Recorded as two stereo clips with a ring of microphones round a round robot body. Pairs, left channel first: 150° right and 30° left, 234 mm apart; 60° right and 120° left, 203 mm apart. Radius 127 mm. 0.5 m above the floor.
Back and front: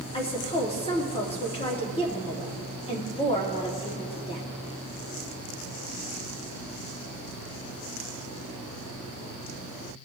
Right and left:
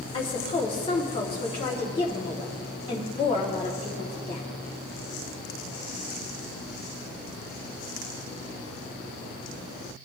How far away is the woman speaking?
About 1.0 m.